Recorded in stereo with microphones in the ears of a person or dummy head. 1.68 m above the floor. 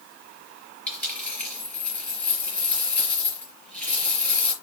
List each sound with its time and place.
0.9 s a dropped coin: 5° left (ahead or behind), 4 m